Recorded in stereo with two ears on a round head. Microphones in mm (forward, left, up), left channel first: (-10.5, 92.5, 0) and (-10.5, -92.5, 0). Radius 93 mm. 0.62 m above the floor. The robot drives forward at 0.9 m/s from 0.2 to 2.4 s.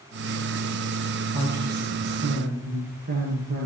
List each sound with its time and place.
1.3 s a woman speaking: 50° right (ahead or behind), 8.5 m; by 3.7 s 45° right (ahead or behind), 9.5 m